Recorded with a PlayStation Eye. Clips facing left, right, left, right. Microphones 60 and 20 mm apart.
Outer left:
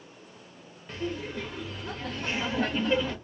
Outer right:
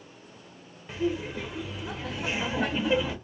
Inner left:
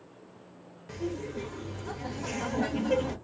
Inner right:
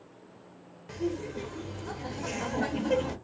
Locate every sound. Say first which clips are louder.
0.9 s laughter: outer right 4 dB, inner right 2 dB; 10° right (ahead or behind), 0.6 m